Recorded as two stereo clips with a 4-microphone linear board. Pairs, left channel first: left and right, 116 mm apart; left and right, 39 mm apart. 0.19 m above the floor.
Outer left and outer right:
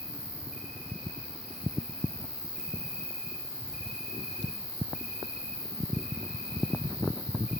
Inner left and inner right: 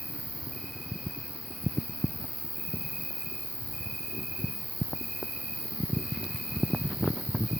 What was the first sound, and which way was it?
An insect, 5° right (ahead or behind).